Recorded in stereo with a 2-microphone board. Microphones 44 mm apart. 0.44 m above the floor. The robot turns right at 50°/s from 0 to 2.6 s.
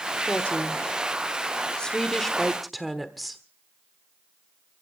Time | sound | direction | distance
0.3 | a woman speaking | 25° left (ahead or behind) | 1.2 m